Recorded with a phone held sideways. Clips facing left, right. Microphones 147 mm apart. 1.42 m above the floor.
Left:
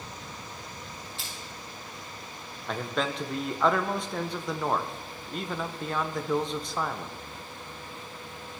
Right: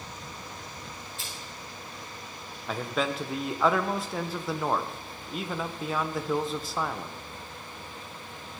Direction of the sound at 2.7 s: 5° right (ahead or behind).